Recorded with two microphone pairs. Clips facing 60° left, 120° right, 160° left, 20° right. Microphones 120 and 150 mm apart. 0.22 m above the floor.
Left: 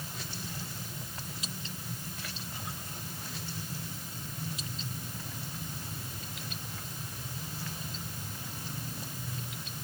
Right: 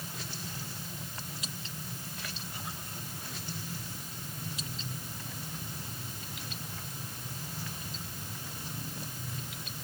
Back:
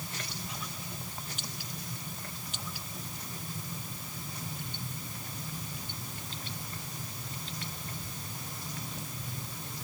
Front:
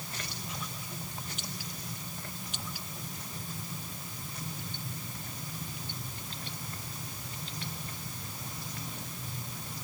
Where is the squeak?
I don't hear a squeak.